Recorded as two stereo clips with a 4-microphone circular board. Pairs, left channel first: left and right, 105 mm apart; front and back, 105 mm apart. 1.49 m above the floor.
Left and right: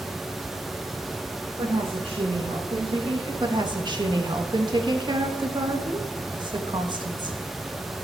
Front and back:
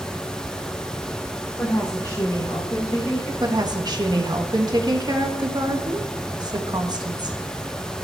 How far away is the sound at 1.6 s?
About 1.3 m.